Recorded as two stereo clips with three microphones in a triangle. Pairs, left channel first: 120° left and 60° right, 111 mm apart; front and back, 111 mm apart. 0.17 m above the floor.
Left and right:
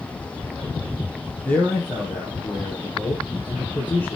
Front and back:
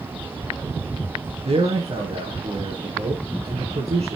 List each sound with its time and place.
1.4 s a man speaking: 165° right, 4.5 m